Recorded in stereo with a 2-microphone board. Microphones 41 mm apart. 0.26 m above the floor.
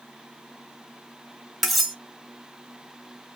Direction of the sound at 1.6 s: Centre (ahead or behind).